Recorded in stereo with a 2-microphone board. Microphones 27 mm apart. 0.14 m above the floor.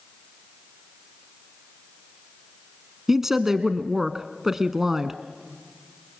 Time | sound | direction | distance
3.1 | a woman speaking | 15° right (ahead or behind) | 1.0 m